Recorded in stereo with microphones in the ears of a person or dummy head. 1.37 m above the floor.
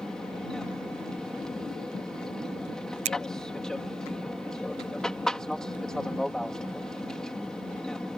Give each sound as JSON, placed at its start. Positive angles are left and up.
{"t": 0.0, "sound": "an aircraft", "side_deg": 0}
{"t": 3.0, "sound": "a finger snap", "side_deg": -35}